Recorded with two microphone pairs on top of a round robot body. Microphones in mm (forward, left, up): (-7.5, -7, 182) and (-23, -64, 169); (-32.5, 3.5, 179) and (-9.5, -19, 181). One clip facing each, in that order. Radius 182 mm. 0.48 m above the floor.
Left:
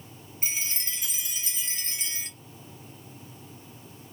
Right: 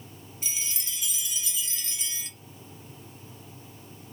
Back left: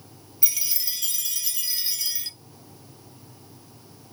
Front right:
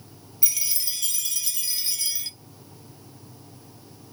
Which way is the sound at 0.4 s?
55° left.